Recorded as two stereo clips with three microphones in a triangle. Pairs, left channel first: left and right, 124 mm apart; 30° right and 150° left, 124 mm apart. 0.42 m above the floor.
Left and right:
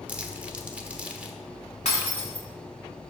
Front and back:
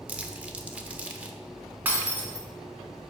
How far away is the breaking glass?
About 1.3 m.